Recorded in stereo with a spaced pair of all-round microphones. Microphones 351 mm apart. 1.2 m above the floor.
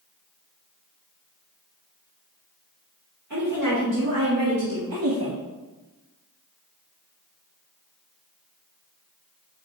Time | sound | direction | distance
3.3 | a woman speaking | 55° right (ahead or behind) | 3 m